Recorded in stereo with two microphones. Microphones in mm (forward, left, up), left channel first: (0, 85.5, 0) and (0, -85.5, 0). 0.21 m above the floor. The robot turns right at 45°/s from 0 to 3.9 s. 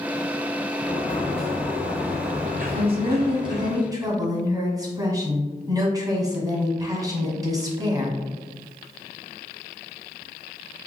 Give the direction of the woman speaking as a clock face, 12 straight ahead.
3 o'clock.